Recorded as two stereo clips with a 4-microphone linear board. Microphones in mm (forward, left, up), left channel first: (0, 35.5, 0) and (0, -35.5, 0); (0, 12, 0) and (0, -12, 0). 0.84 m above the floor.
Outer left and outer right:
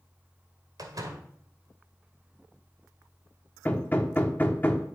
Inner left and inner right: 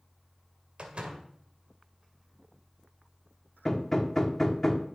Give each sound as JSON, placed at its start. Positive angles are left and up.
{"t": 0.8, "sound": "a door slam", "side_deg": -60, "distance_m": 1.9}
{"t": 3.6, "sound": "hammering", "side_deg": 25, "distance_m": 1.1}